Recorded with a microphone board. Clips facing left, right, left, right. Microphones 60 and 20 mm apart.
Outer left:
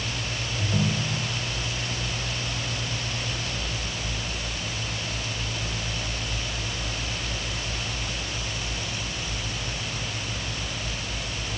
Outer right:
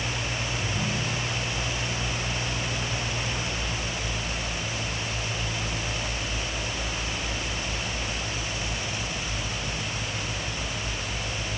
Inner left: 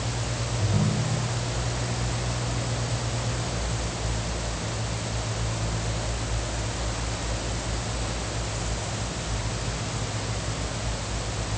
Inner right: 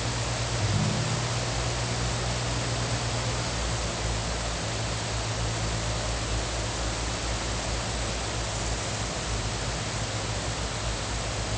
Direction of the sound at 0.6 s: 70° left (ahead or behind).